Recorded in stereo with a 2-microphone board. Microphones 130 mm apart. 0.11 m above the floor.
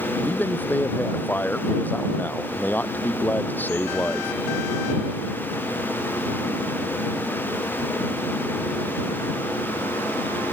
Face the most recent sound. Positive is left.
turn(degrees=15)  # may be behind; listen again after turning